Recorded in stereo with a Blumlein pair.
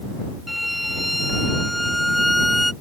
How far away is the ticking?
No ticking in this recording.